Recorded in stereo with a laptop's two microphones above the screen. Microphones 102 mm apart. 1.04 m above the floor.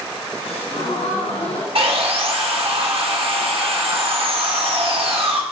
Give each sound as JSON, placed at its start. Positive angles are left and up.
{"t": 0.4, "sound": "a gasp", "side_deg": 75, "distance_m": 3.5}
{"t": 1.8, "sound": "sawing", "side_deg": -65, "distance_m": 1.3}